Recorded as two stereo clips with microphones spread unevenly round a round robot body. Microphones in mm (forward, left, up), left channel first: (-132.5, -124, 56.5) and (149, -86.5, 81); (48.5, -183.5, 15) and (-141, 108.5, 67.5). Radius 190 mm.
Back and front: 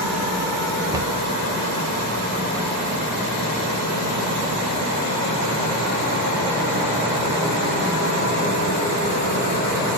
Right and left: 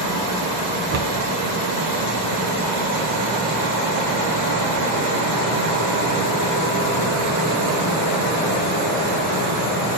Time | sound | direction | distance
0.9 | a cupboard door | 85° left | 0.8 m